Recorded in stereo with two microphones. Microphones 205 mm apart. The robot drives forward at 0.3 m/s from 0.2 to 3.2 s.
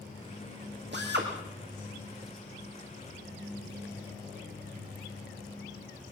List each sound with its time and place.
0.9 s a drill: 60° right (ahead or behind), 4.5 m; by 1.3 s 55° right (ahead or behind), 4.5 m